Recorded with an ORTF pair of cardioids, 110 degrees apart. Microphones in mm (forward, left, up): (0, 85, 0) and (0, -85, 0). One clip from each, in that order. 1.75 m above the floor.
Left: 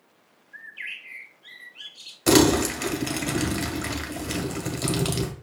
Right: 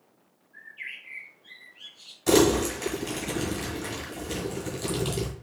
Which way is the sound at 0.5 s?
65° left.